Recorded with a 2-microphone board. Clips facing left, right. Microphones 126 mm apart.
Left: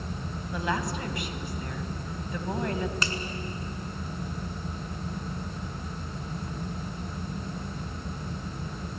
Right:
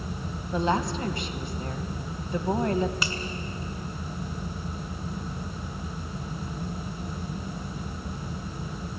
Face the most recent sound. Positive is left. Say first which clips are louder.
# even
turn(degrees=-10)  # may be behind; listen again after turning